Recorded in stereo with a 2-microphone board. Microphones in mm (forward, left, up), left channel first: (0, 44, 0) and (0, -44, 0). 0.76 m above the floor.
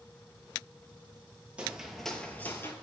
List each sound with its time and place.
1.6 s footsteps: 10° right (ahead or behind), 0.9 m; by 2.7 s 30° left (ahead or behind), 0.9 m